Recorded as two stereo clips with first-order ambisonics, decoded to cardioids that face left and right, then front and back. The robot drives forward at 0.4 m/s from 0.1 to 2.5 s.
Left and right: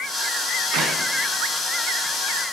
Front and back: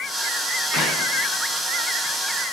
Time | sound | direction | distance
0.7 | a clap | 50° right | 3.5 m